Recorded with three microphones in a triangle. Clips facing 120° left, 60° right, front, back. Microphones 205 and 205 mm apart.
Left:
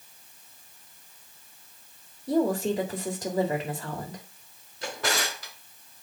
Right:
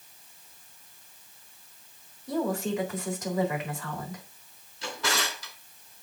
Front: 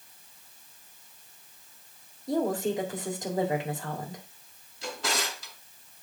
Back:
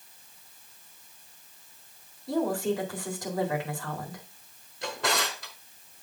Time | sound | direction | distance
2.3 | a woman speaking | 65° left | 1.9 m
4.8 | a drawer | 150° left | 2.0 m